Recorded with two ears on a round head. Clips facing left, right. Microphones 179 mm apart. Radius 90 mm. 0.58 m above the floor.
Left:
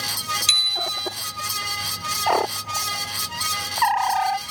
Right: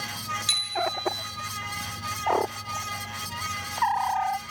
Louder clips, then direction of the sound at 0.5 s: Right 9 dB; 35° left (ahead or behind).